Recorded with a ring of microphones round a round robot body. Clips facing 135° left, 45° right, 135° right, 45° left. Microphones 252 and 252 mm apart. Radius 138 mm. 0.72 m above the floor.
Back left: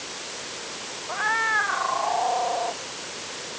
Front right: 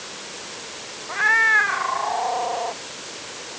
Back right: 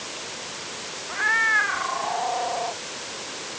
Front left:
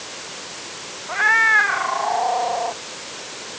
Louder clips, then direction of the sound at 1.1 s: Front right 2 dB, front left 7 dB; 15° left.